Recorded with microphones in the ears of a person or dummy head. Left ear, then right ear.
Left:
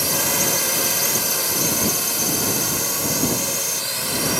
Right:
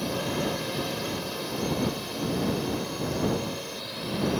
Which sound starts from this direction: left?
A drone, at 0.0 s.